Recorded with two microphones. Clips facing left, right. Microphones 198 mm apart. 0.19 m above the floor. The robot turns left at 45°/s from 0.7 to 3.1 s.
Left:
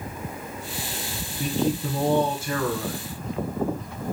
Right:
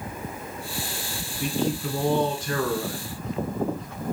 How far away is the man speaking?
About 1.7 m.